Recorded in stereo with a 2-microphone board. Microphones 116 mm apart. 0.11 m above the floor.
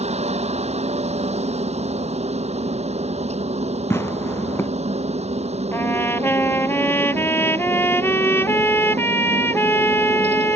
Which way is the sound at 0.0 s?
70° right (ahead or behind).